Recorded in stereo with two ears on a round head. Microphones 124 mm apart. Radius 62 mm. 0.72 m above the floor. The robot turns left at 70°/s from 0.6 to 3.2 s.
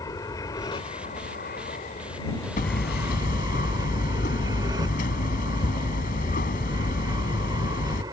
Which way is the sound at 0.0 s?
150° left.